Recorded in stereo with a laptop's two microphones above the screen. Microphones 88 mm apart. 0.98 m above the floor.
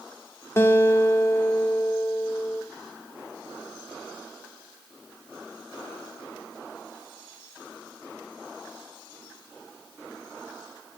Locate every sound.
0.6 s a guitar: 30° left (ahead or behind), 2 m